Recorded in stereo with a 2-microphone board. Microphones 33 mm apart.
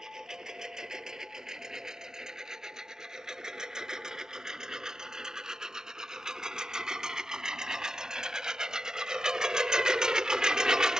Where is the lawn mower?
20° right (ahead or behind).